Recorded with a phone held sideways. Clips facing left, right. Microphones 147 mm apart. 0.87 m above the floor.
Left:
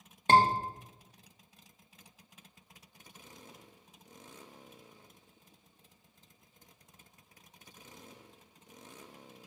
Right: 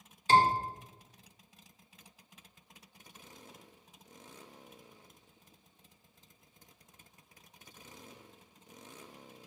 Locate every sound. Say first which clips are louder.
0.3 s a scream: left 1 dB; 60° left (ahead or behind), 1.8 m